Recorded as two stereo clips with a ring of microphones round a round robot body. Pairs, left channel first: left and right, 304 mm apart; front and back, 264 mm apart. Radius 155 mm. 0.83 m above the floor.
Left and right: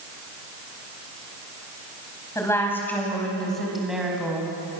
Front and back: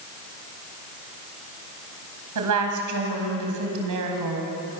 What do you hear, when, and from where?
2.4 s a woman speaking: 170° left, 5 m; by 4.5 s 175° right, 5 m